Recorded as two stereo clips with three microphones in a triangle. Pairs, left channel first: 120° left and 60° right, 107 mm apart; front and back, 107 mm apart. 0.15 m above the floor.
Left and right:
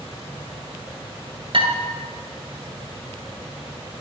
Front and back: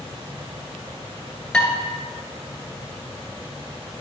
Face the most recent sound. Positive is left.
turn(degrees=-80)